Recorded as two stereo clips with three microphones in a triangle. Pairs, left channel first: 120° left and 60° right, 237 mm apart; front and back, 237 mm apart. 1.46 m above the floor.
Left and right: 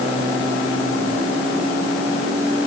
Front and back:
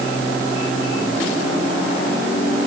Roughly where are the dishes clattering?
I don't hear dishes clattering.